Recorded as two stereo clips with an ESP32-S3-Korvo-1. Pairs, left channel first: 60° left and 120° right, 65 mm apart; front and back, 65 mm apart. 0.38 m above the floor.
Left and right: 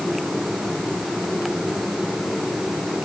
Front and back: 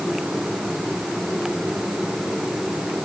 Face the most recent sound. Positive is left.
No sound to turn to.